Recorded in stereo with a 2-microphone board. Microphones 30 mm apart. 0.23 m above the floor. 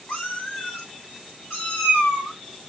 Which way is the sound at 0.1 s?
70° left (ahead or behind).